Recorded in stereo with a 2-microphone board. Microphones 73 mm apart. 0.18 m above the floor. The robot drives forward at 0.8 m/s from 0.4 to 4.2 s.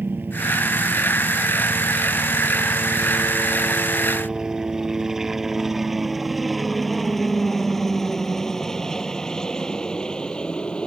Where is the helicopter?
25° right (ahead or behind); by 10.9 s 15° left (ahead or behind).